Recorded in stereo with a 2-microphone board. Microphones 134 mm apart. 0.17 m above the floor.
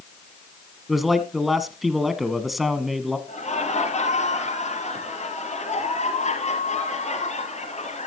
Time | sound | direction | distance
0.9 | a man speaking | centre (ahead or behind) | 1.3 m
3.3 | laughter | 55° left (ahead or behind) | 4 m